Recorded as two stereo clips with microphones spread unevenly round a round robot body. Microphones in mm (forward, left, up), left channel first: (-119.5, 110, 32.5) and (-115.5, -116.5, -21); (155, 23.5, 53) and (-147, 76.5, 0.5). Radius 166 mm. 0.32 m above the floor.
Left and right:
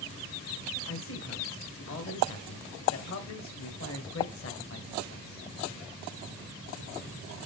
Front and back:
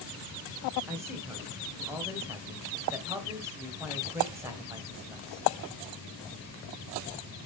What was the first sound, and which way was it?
A man speaking, 100° left.